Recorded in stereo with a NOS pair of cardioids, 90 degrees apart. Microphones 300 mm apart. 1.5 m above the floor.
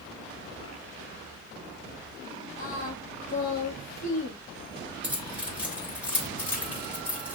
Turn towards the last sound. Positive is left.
turn(degrees=-5)